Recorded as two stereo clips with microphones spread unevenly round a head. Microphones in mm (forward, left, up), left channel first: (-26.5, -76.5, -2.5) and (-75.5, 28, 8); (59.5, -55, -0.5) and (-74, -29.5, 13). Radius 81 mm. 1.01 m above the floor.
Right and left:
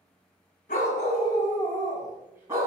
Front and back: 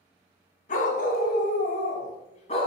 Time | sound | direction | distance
0.7 | a dog barking | 35° right | 1.8 m